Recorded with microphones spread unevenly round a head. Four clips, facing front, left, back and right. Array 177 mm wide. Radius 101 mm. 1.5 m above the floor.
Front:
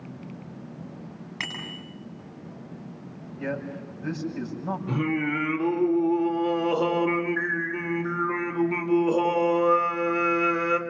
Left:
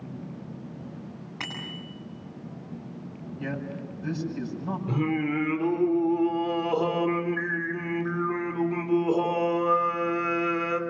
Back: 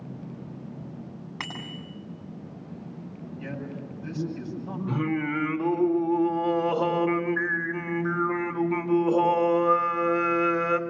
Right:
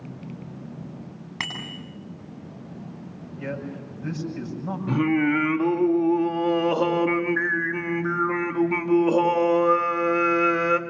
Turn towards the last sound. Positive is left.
turn(degrees=-65)